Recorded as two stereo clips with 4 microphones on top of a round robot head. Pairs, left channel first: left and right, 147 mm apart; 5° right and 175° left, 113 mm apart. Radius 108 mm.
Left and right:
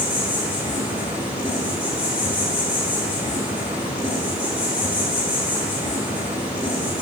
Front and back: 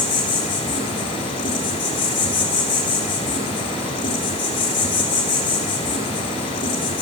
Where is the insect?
10° right, 0.9 m.